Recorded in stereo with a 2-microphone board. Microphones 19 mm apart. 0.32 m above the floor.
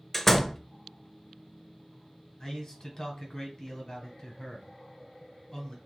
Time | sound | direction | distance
0.1 | a door slam | 20° left (ahead or behind) | 0.6 m
2.4 | a man speaking | 40° left (ahead or behind) | 1.8 m